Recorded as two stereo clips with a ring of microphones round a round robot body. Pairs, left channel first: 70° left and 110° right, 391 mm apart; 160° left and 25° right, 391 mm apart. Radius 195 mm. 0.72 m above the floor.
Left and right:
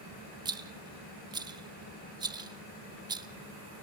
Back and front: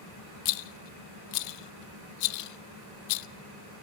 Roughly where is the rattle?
Behind.